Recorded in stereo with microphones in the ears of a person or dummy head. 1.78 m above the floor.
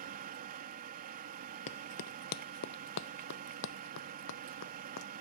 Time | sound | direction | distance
0.0 | a machine running | 45° right (ahead or behind) | ?
1.7 | running footsteps | 30° left (ahead or behind) | ?